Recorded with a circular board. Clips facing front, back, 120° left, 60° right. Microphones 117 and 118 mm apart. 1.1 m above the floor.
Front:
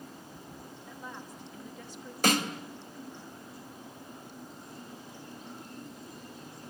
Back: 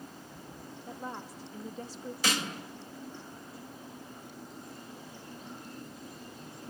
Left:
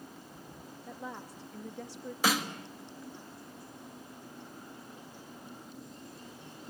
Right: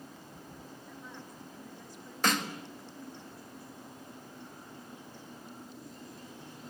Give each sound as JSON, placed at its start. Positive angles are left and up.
{"t": 0.9, "sound": "a woman speaking", "azimuth_deg": 125, "distance_m": 1.9}
{"t": 2.2, "sound": "a snare drum", "azimuth_deg": 35, "distance_m": 1.8}